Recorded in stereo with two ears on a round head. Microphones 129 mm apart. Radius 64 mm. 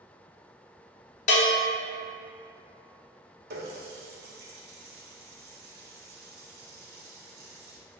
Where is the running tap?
70° right (ahead or behind), 0.8 m.